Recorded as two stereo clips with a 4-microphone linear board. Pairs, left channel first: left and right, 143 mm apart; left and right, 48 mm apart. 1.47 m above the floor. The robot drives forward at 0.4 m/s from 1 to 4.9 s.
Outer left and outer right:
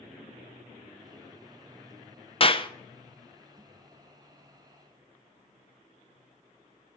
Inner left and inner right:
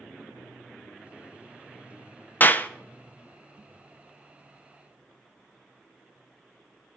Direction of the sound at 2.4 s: 40° left (ahead or behind).